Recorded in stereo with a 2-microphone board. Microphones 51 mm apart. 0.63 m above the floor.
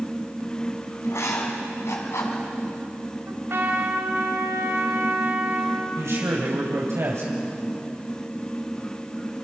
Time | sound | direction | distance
1.0 | writing | 75° left (ahead or behind) | 4.5 m
3.3 | a trumpet | 55° right (ahead or behind) | 3.5 m
6.0 | a man speaking | 75° right (ahead or behind) | 3.5 m